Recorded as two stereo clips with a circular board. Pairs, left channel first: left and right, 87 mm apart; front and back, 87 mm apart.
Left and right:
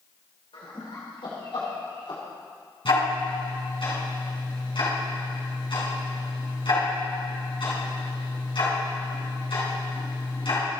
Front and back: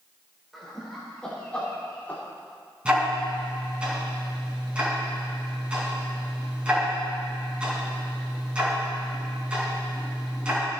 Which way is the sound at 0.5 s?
90° left.